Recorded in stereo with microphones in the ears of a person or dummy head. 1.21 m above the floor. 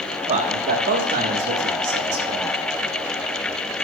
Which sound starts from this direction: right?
A man speaking, at 0.3 s.